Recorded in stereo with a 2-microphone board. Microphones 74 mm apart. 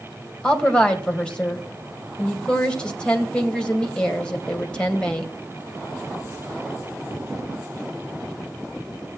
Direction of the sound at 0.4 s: 10° left (ahead or behind).